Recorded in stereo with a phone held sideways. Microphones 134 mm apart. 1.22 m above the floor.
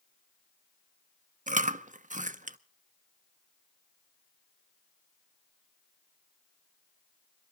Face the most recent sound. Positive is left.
turn(degrees=-70)  # may be behind; listen again after turning